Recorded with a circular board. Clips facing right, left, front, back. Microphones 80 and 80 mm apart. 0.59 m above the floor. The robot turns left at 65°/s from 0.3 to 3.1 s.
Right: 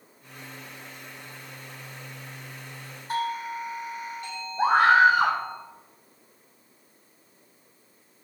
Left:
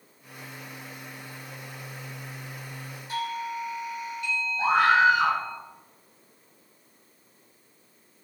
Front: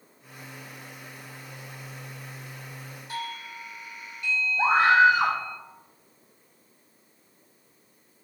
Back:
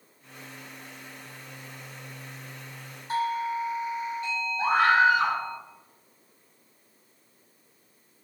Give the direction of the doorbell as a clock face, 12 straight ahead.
4 o'clock.